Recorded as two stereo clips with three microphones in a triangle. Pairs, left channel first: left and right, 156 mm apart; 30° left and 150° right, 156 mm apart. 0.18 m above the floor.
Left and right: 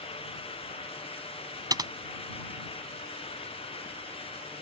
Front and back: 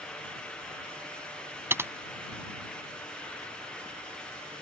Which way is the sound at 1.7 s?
100° right.